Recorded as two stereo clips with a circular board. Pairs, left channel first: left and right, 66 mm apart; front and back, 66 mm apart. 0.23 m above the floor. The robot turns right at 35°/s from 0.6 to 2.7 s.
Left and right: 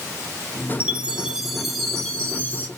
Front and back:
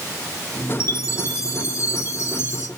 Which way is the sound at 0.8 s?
30° right.